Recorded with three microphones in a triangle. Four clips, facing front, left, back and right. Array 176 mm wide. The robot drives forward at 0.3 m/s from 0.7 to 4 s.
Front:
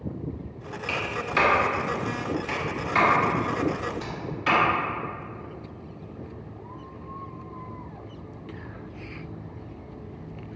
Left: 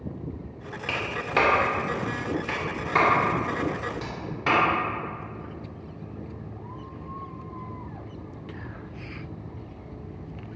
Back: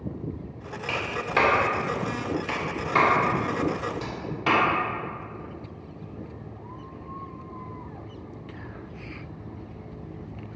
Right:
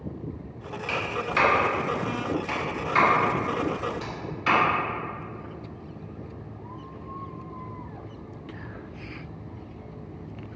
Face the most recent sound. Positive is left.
turn(degrees=140)